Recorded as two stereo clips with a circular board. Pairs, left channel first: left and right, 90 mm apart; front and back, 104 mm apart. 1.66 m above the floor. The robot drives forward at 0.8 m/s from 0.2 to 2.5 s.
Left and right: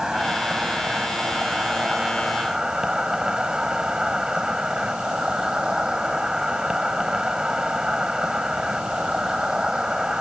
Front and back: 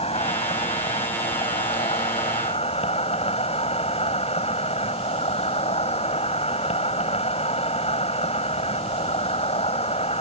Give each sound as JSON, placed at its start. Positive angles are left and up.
{"t": 0.0, "sound": "an insect", "azimuth_deg": -5}